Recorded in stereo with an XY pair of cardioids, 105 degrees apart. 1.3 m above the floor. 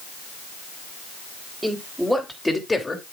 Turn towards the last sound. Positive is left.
turn(degrees=20)